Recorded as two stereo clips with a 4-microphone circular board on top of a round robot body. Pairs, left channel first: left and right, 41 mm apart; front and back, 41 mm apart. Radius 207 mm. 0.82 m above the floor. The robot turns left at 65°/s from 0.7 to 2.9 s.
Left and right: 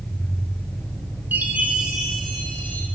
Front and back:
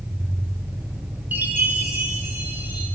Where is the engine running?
145° left, 6.5 m; by 3.0 s straight ahead, 6.5 m.